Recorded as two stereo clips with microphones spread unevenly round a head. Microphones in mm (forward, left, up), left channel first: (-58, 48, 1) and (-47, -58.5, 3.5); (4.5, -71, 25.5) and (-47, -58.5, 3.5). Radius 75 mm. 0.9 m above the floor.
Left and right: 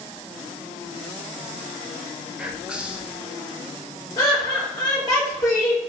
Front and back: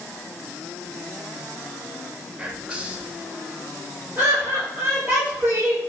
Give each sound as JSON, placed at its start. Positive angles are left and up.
{"t": 2.4, "sound": "whispering", "azimuth_deg": -165, "distance_m": 0.6}
{"t": 4.2, "sound": "laughter", "azimuth_deg": 140, "distance_m": 0.8}